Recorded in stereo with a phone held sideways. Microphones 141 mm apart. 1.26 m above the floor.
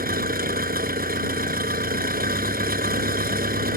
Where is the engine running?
80° right.